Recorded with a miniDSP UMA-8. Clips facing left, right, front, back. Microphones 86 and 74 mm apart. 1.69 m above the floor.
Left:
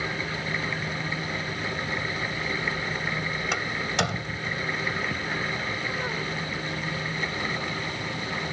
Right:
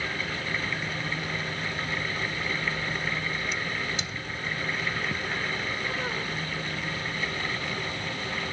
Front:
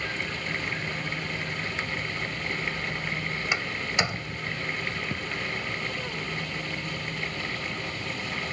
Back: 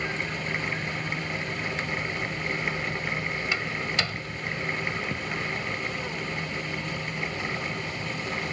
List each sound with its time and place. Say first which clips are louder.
3.5 s a door slam: left 4 dB, front 2 dB; 70° left